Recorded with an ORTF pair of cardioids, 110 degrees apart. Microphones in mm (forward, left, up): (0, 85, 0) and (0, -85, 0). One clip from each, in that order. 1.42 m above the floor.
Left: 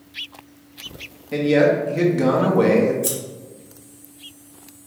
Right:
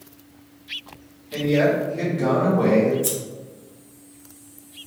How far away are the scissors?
About 1.1 m.